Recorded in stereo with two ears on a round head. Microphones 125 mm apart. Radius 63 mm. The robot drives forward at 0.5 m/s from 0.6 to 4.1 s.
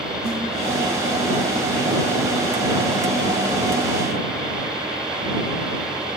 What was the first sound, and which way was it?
A snare drum, 80° right.